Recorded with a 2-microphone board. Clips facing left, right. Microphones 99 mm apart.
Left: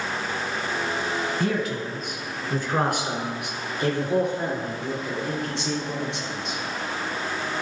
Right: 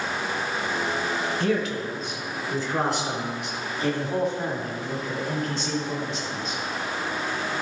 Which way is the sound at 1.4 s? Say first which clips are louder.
Right 1 dB; 40° left (ahead or behind).